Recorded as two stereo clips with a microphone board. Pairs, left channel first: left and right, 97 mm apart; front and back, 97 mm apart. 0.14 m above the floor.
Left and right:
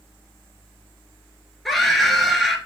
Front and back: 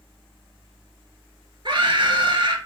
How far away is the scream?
About 2.0 m.